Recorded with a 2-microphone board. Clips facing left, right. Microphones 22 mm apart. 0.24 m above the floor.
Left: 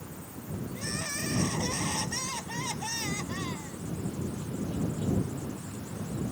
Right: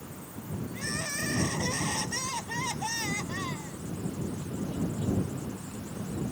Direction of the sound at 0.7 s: 25° right (ahead or behind).